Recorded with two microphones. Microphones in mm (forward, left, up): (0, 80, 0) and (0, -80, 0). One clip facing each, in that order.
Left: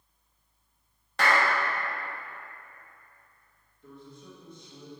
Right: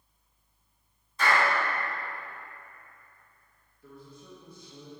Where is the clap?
75° left (ahead or behind), 1.2 m.